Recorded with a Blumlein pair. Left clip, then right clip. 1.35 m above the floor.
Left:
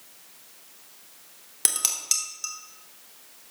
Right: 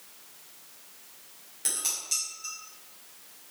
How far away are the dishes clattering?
About 2.5 m.